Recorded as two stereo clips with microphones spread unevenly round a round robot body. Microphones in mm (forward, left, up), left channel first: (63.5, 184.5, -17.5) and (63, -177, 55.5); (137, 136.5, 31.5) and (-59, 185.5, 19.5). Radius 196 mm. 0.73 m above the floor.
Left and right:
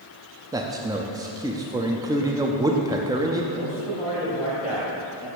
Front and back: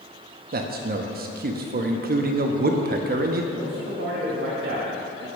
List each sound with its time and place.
0.5 s a man speaking: straight behind, 0.6 m
3.5 s a man speaking: 165° left, 2.5 m